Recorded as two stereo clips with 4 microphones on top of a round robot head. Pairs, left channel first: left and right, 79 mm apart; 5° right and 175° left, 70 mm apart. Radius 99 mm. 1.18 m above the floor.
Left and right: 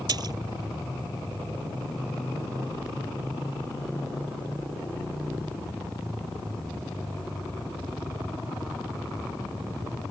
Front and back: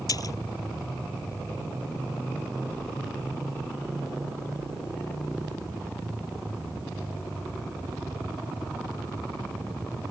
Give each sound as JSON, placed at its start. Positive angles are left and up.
{"t": 0.1, "sound": "a splash", "azimuth_deg": -45}